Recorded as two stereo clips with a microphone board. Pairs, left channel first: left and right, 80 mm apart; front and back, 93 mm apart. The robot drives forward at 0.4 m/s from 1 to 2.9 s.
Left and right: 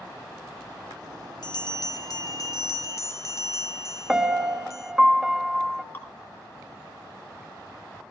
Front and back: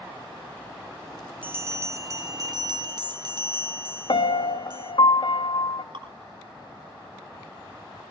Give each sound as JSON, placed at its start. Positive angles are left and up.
{"t": 1.4, "sound": "a bell", "azimuth_deg": 110, "distance_m": 0.8}
{"t": 4.1, "sound": "a piano", "azimuth_deg": -5, "distance_m": 0.6}
{"t": 5.9, "sound": "dripping", "azimuth_deg": 155, "distance_m": 2.0}